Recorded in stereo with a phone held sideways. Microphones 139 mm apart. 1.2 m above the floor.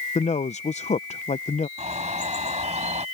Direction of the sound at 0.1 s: 55° left (ahead or behind).